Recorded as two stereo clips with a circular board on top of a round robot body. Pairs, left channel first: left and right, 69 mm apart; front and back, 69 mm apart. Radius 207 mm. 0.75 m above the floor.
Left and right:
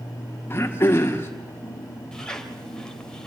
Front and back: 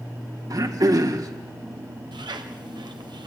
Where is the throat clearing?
145° left, 2.0 m.